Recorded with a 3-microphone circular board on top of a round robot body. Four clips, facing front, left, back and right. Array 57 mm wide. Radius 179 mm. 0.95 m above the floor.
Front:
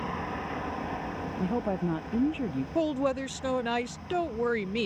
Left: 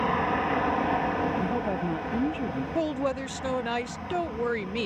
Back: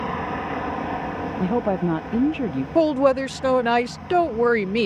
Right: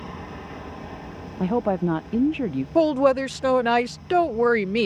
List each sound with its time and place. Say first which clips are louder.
0.0 s an aircraft: left 11 dB, back 7 dB; 115° left
1.4 s a woman speaking: right 5 dB, back 8 dB; 130° right
2.8 s a woman speaking: right 11 dB, back 11 dB; 135° right